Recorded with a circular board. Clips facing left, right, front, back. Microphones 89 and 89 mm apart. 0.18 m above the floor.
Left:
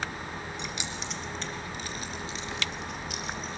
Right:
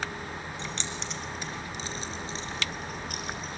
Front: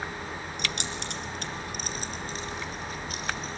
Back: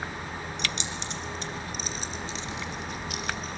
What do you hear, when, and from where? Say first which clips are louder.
0.6 s keys jangling: even, even; 20° left, 2 m; by 3.6 s 55° right, 3.5 m